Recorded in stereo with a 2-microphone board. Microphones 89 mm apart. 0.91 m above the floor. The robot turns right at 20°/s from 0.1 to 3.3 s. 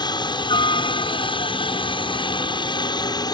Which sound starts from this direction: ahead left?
A helicopter, at 0.0 s.